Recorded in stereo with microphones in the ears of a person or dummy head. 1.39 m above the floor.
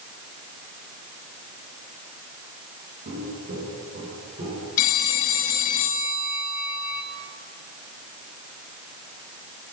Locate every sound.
3.0 s footsteps: 50° right (ahead or behind), 5 m; by 4.7 s 40° right (ahead or behind), 6 m
4.8 s a phone ringing: 45° left (ahead or behind), 0.6 m